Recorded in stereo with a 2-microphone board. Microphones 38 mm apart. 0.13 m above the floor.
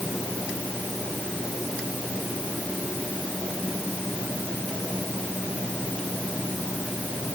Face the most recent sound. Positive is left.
No sound to turn to.